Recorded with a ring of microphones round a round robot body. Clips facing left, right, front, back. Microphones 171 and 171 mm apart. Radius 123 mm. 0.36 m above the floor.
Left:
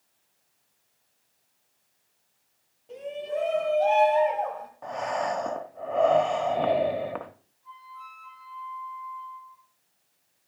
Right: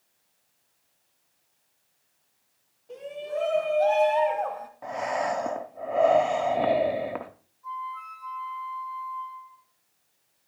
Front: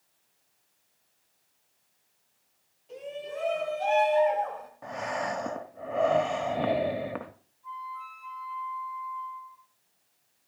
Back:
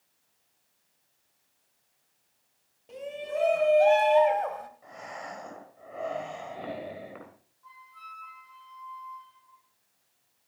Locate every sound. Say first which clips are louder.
2.9 s a shout: left 1 dB, back 3 dB; 160° left, 3.5 m; by 4.7 s 175° right, 2.5 m
4.8 s breathing: right 1 dB, front 10 dB; 10° right, 0.8 m
7.6 s a flute: right 9 dB, front 12 dB; 140° right, 7 m